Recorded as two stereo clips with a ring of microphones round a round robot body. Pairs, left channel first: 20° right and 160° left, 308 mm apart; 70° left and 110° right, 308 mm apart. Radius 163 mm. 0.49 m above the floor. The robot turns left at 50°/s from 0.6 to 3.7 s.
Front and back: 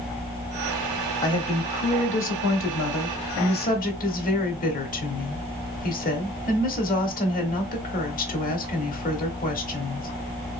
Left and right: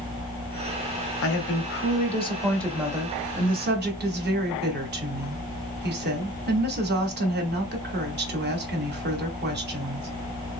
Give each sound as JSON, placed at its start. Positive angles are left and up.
{"t": 1.2, "sound": "a woman speaking", "azimuth_deg": 50, "distance_m": 1.2}